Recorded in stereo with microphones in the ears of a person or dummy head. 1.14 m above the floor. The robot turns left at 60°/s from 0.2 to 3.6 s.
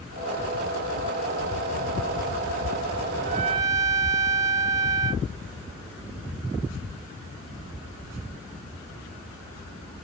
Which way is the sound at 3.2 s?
40° right (ahead or behind).